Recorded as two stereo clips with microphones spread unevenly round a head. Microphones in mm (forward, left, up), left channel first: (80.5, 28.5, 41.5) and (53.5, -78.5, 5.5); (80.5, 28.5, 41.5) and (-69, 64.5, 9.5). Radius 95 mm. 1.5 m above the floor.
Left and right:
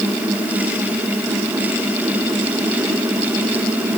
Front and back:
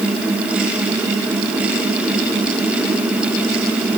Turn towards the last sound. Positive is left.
No sound to turn to.